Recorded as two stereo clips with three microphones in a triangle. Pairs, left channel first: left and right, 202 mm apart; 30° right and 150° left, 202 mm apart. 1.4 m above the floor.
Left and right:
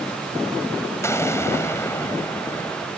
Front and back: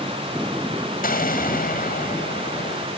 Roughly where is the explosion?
Ahead.